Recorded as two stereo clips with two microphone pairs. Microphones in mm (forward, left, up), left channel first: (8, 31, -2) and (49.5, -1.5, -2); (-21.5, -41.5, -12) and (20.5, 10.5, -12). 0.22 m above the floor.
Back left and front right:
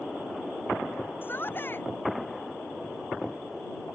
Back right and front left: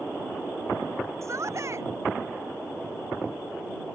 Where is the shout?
95° left.